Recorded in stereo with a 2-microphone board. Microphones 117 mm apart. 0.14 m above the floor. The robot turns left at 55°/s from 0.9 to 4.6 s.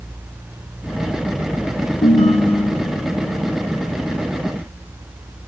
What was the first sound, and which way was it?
A ringtone, 85° left.